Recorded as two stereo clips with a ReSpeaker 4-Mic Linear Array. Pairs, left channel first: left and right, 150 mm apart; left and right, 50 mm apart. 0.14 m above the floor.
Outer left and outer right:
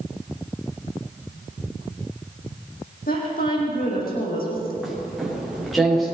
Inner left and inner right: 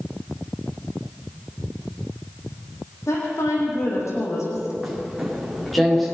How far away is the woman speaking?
About 7 m.